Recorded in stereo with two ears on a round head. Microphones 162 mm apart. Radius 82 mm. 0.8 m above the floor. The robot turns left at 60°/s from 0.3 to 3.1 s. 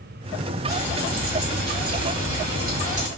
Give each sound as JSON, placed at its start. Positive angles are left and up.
{"t": 0.7, "sound": "frying", "azimuth_deg": 0, "distance_m": 3.0}